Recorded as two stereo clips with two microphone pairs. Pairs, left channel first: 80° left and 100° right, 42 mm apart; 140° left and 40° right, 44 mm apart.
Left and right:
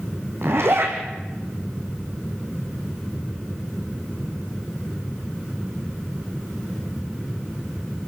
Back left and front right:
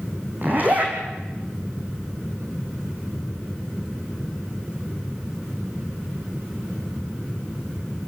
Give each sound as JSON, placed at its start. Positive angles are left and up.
{"t": 0.4, "sound": "a zipper", "azimuth_deg": -85, "distance_m": 3.5}